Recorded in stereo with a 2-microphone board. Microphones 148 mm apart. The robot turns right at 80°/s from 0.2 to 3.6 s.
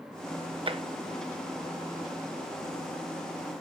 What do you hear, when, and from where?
0.7 s tapping: 40° right (ahead or behind), 0.6 m